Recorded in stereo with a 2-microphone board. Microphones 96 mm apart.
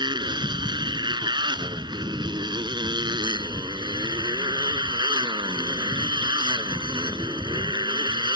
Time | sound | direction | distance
0.0 | a motorcycle | 55° right (ahead or behind) | ?